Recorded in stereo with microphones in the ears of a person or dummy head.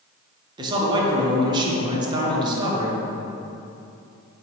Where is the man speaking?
30° right (ahead or behind), 1.6 m.